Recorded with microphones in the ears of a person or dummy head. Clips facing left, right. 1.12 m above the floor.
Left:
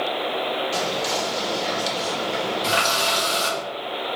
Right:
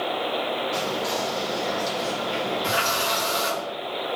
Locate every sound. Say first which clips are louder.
0.7 s whispering: left 1 dB; 45° left (ahead or behind), 1.3 m
2.6 s a running tap: left 2 dB; 50° left (ahead or behind), 1.5 m